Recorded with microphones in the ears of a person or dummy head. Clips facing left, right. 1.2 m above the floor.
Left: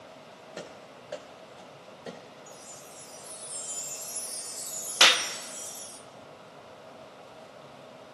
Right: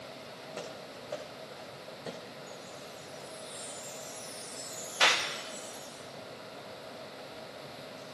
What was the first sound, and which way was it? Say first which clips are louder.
Running footsteps: even; 15° left (ahead or behind).